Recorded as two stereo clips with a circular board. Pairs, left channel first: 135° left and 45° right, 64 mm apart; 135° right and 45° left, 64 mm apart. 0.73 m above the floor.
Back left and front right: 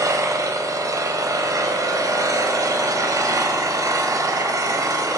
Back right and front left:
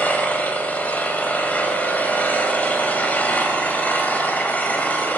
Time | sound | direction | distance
0.0 | an engine running | 70° right | 1.6 m